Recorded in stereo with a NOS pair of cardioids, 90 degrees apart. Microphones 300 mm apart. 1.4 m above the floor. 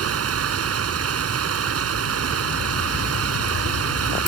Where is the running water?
55° right.